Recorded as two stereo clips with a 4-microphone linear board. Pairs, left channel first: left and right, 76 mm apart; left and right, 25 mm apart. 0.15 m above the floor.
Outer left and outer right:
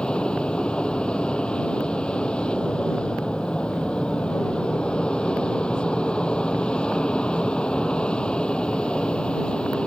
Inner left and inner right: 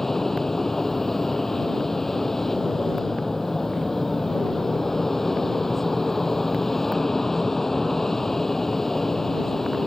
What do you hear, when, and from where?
0.0 s an aircraft: 10° left (ahead or behind)